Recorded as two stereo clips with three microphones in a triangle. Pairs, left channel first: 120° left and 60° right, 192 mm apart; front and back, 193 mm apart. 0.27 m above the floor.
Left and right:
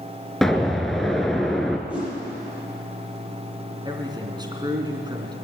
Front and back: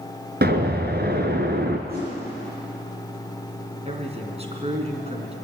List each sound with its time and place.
0.4 s an explosion: 150° right, 1.7 m
1.9 s a whoosh: 145° right, 9.5 m
3.9 s a man speaking: 125° right, 3 m